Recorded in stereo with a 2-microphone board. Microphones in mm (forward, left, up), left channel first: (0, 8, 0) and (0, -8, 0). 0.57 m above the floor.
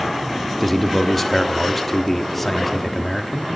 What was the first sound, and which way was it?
A man speaking, 15° left (ahead or behind).